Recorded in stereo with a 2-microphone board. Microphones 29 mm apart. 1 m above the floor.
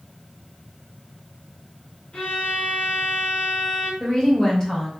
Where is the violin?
45° left (ahead or behind), 1.2 m.